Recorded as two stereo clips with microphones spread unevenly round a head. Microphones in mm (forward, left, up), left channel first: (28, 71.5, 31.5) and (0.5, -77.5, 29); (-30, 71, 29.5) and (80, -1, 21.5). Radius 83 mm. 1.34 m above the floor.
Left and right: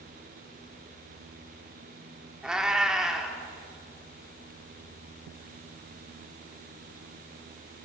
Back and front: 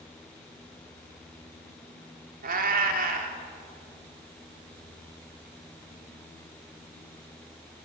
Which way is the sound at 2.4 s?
15° right.